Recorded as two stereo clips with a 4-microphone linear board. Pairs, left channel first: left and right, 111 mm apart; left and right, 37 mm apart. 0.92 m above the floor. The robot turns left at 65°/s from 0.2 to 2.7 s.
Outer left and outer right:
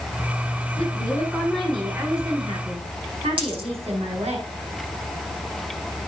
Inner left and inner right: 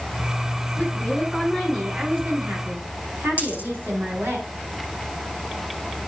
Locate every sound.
0.8 s a woman speaking: 55° left, 7.5 m; by 4.4 s 70° right, 7.5 m
3.4 s a dropped coin: 55° right (ahead or behind), 8 m